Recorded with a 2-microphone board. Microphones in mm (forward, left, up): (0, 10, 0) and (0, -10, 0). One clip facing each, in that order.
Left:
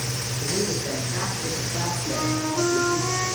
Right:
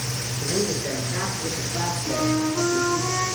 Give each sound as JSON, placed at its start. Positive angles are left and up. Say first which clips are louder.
{"t": 0.4, "sound": "a man speaking", "louder": "right 1 dB", "side_deg": -15, "distance_m": 4.5}
{"t": 2.1, "sound": "a flute", "louder": "right 4 dB", "side_deg": -5, "distance_m": 6.5}